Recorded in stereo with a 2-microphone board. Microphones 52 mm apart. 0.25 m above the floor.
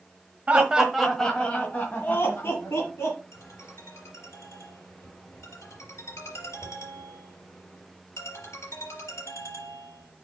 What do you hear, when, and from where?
0.5 s laughter: 20° right (ahead or behind), 1.4 m; by 3.2 s 55° left (ahead or behind), 3 m
3.3 s a ringtone: 65° left (ahead or behind), 4 m